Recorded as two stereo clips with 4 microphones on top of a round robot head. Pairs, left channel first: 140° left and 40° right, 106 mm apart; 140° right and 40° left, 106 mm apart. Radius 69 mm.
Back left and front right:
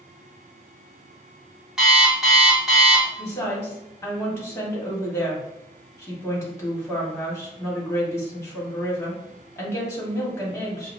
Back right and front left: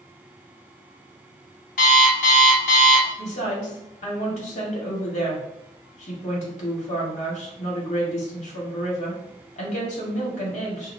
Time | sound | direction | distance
1.8 | an alarm clock | 125° right | 1.2 m
3.2 | a woman speaking | 150° right | 1.8 m